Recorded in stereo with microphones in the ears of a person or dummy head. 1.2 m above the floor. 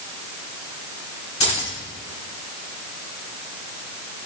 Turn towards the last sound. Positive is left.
turn(degrees=25)  # may be behind; listen again after turning